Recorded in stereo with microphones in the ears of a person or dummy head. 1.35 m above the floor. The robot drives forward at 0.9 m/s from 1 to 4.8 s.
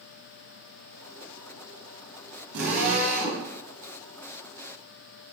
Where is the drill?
85° right, 7 m.